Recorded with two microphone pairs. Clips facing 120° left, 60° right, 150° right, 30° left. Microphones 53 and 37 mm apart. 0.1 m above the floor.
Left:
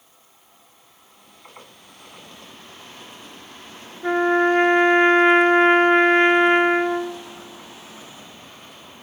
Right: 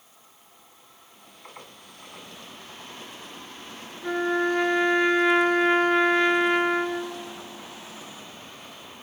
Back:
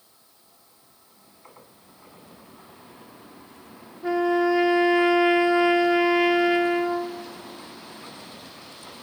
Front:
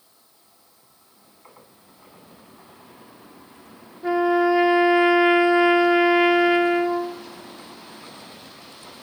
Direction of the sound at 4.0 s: 105° left.